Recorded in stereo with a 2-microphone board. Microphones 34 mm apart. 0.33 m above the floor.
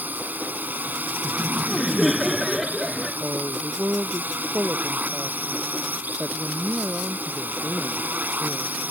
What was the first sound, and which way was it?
A drone, 60° right (ahead or behind).